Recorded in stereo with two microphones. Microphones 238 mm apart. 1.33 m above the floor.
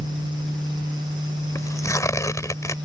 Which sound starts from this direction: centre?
Tearing paper, at 1.6 s.